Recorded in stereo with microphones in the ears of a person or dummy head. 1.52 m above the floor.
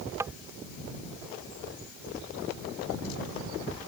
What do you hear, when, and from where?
0.2 s tapping: 10° right (ahead or behind)